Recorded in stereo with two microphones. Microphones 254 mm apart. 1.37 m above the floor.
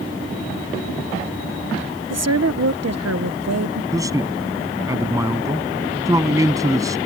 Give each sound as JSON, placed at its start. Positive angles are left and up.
{"t": 2.1, "sound": "a woman speaking", "side_deg": -75}
{"t": 3.9, "sound": "a man speaking", "side_deg": -10}